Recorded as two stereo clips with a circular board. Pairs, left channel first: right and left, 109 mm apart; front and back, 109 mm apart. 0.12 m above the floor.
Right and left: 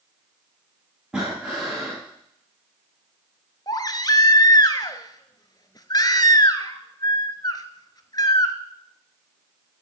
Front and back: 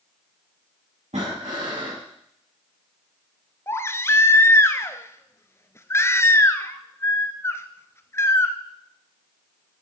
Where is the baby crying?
55° right, 0.8 m.